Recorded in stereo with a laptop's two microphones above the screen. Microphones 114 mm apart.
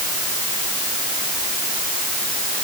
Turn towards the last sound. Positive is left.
No sound to turn to.